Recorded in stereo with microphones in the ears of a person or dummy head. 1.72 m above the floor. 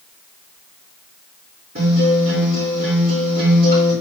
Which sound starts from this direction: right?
A guitar, at 1.8 s.